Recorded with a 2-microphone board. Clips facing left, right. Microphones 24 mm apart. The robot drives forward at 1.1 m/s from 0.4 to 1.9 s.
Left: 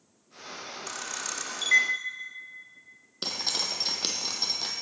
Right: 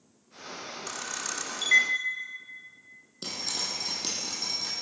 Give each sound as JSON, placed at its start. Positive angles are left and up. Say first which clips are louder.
{"t": 0.9, "sound": "a camera shutter", "louder": "even", "side_deg": 0, "distance_m": 1.0}
{"t": 3.2, "sound": "dripping", "louder": "left 3 dB", "side_deg": 45, "distance_m": 1.2}